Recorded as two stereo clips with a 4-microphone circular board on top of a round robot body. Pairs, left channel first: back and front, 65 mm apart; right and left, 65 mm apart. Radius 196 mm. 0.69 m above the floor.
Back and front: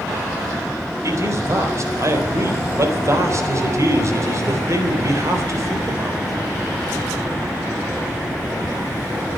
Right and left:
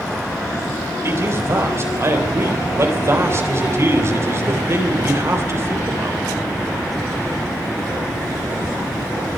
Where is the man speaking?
40° left, 4 m.